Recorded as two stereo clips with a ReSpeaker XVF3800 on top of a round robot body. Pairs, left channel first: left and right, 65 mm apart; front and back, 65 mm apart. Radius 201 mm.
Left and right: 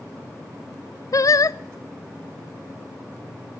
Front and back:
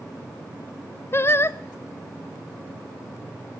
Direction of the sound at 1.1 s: 55° left.